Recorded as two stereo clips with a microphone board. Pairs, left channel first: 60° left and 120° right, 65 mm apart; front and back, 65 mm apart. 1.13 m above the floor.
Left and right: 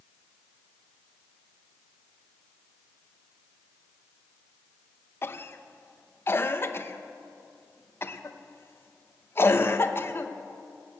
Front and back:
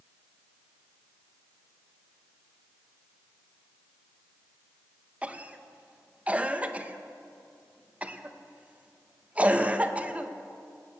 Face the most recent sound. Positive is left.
turn(degrees=115)